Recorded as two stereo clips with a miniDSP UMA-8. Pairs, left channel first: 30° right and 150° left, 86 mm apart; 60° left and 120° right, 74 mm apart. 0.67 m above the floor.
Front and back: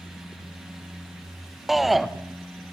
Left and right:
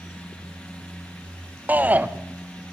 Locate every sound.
1.7 s a shout: 125° right, 0.6 m